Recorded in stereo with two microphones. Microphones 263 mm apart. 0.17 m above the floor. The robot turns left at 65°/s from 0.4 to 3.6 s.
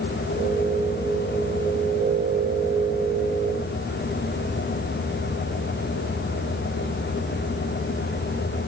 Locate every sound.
Only background noise.